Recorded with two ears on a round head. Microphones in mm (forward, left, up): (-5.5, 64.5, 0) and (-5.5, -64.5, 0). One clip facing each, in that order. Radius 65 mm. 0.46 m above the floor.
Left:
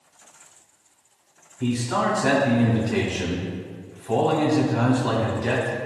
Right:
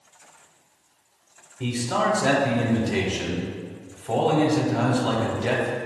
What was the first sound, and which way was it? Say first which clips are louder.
A man speaking: left 1 dB; 35° right (ahead or behind).